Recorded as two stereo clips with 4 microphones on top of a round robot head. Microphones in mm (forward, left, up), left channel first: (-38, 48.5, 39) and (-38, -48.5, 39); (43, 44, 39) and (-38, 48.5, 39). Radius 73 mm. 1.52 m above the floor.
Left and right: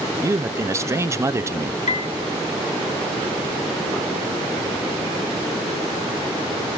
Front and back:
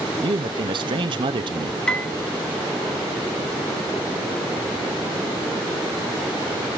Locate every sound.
0.2 s a man speaking: 150° right, 0.9 m
1.9 s a piano: 75° left, 1.7 m